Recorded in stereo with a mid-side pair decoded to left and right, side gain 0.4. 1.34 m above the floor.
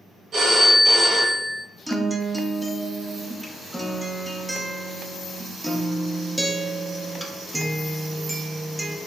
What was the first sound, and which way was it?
A phone ringing, 60° right.